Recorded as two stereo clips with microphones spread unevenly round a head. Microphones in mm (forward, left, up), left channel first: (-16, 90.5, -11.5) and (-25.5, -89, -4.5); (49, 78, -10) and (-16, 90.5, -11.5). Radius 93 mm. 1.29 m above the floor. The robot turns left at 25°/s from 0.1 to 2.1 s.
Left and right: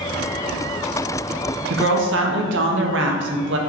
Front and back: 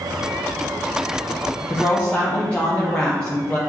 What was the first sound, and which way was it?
A woman speaking, 85° right.